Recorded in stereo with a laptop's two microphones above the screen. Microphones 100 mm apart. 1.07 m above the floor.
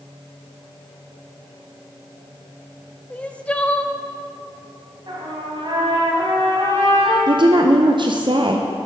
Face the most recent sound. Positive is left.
turn(degrees=-50)  # may be behind; listen again after turning